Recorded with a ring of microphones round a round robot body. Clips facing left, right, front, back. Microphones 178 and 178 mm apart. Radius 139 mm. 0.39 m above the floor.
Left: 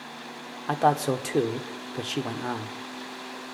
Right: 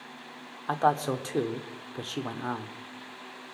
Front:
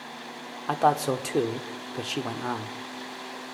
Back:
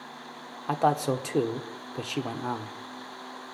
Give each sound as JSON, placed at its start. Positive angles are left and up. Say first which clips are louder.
{"t": 0.7, "sound": "a man speaking", "louder": "left 3 dB, front 1 dB", "azimuth_deg": 95, "distance_m": 1.1}